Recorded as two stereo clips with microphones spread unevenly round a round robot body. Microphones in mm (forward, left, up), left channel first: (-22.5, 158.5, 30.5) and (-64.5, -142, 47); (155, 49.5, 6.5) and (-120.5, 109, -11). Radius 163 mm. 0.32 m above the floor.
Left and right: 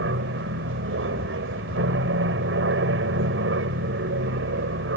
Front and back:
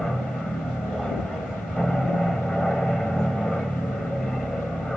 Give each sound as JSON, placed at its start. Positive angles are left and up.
{"t": 0.0, "sound": "an aircraft", "azimuth_deg": -100}